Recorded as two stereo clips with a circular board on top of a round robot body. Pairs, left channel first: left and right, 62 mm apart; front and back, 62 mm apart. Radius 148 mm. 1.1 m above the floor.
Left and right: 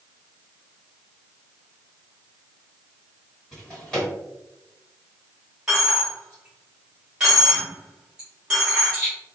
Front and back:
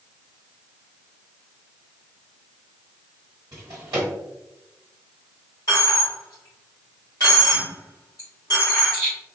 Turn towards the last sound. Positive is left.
turn(degrees=-10)